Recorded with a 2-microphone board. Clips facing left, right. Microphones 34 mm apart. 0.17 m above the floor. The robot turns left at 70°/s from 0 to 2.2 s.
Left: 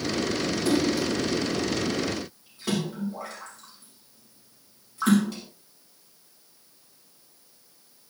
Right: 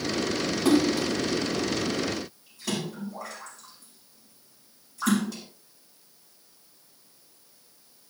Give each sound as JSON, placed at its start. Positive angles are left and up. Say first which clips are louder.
{"t": 0.7, "sound": "a splash", "louder": "right 3 dB", "side_deg": -70, "distance_m": 7.5}